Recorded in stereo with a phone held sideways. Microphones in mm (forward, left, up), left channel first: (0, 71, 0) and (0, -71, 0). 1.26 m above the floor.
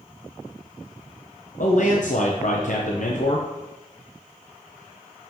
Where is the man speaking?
65° left (ahead or behind), 0.8 m.